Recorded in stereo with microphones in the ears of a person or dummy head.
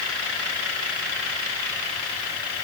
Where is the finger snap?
No finger snap in this recording.